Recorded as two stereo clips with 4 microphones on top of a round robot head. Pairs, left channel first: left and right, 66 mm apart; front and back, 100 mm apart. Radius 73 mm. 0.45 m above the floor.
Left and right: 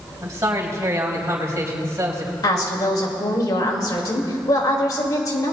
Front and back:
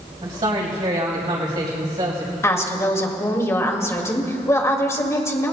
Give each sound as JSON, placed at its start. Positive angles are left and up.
{"t": 0.2, "sound": "a man speaking", "azimuth_deg": -140, "distance_m": 3.5}
{"t": 2.4, "sound": "a woman speaking", "azimuth_deg": 60, "distance_m": 1.9}